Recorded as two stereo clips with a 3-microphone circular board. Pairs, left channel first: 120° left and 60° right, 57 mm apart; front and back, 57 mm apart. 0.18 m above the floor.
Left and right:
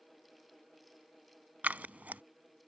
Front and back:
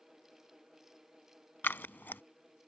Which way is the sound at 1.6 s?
20° right.